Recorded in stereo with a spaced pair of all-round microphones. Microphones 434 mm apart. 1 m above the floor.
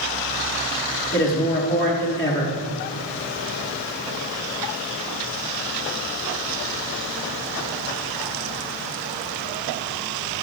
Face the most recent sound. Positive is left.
turn(degrees=30)  # may be behind; listen again after turning